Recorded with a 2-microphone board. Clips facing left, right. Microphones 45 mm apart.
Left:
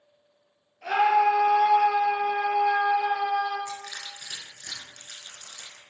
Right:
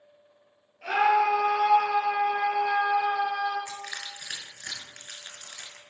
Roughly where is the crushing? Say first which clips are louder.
Even; right.